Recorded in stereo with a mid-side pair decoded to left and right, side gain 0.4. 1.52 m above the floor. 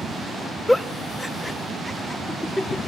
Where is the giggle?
10° left, 1.1 m.